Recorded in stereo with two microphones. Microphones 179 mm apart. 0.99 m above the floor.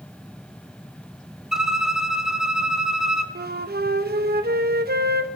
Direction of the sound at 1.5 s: 5° right (ahead or behind).